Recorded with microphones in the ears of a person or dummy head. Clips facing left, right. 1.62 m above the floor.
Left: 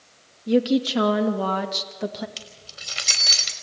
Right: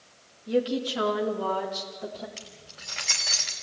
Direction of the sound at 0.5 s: 65° left (ahead or behind).